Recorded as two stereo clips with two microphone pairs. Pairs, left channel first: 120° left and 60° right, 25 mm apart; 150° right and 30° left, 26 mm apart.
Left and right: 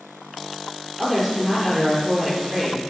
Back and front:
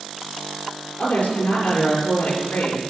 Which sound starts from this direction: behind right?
A woman speaking, at 1.0 s.